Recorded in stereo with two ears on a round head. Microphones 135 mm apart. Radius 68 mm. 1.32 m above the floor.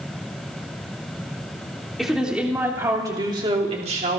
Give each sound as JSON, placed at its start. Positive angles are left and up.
{"t": 2.0, "sound": "a woman speaking", "side_deg": 0, "distance_m": 3.0}